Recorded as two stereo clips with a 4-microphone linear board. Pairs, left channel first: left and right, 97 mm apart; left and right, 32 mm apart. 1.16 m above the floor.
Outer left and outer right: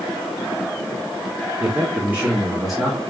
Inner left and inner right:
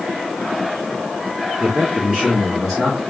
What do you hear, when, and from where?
1.6 s a man speaking: 30° right (ahead or behind), 1.2 m; by 3.0 s 5° left (ahead or behind), 1.1 m